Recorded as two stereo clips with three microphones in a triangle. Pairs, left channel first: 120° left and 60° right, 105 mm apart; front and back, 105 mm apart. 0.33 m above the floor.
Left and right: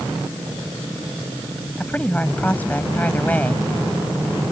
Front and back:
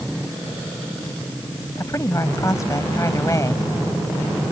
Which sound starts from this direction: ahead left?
A woman speaking, at 1.8 s.